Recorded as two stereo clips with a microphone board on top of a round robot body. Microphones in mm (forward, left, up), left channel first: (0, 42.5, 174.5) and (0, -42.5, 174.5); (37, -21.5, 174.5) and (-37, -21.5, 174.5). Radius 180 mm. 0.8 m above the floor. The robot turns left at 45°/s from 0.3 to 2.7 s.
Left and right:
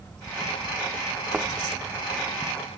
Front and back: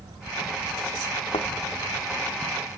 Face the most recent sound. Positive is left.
turn(degrees=-70)